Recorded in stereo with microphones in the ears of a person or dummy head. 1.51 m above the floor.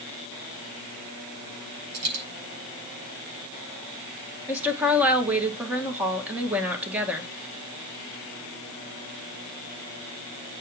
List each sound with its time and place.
1.9 s a dropped coin: 80° right, 6.5 m
4.5 s a woman speaking: 10° right (ahead or behind), 1.6 m